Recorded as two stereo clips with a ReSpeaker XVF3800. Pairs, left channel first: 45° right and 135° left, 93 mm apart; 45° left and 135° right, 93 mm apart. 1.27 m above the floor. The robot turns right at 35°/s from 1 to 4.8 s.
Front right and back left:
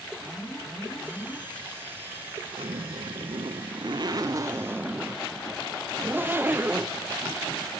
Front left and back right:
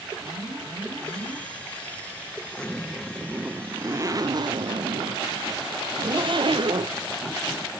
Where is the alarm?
130° right, 5 m; by 1.4 s 115° right, 5 m.